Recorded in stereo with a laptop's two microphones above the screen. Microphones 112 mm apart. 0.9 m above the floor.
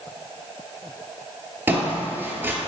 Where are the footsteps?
20° right (ahead or behind), 0.9 m.